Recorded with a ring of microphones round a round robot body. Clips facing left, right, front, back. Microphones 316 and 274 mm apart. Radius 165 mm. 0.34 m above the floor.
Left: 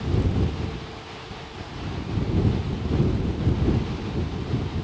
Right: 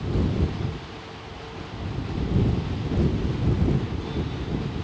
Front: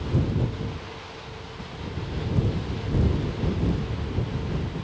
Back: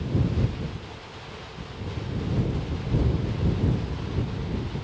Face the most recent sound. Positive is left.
No sound to turn to.